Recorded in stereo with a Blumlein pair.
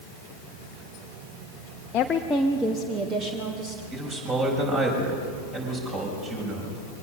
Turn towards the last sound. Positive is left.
turn(degrees=-25)